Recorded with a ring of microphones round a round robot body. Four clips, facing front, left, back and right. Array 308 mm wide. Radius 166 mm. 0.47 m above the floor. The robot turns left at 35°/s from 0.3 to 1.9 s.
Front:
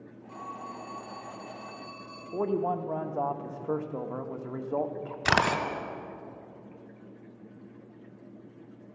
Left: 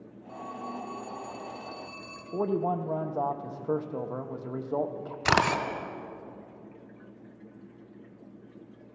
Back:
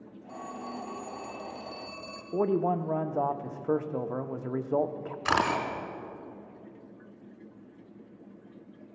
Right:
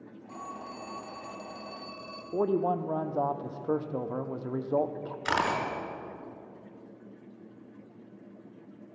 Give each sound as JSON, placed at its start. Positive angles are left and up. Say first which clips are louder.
{"t": 0.3, "sound": "a phone ringing", "louder": "left 3 dB, back 1 dB", "azimuth_deg": -110, "distance_m": 2.0}
{"t": 2.3, "sound": "a man speaking", "louder": "right 1 dB, back 2 dB", "azimuth_deg": -150, "distance_m": 0.8}
{"t": 5.2, "sound": "a camera shutter", "louder": "left 3 dB, front 1 dB", "azimuth_deg": 50, "distance_m": 1.0}